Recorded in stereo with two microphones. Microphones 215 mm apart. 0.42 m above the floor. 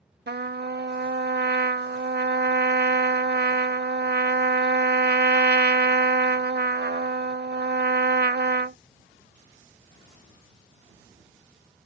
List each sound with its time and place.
0.3 s a trumpet: 50° right (ahead or behind)